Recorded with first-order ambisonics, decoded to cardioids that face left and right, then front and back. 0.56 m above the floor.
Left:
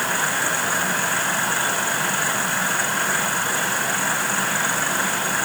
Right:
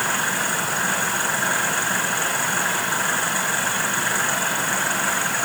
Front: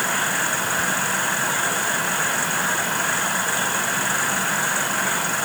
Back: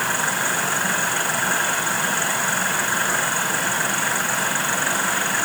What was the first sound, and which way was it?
Only background noise.